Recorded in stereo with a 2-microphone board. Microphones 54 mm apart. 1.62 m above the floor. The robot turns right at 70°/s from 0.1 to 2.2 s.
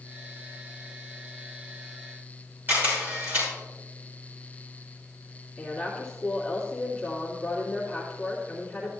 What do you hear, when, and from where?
2.7 s a camera shutter: 35° right (ahead or behind), 5.5 m
5.6 s a woman speaking: 15° left (ahead or behind), 2.5 m